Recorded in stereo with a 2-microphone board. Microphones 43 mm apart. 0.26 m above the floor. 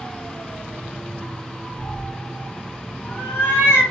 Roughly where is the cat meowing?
Left.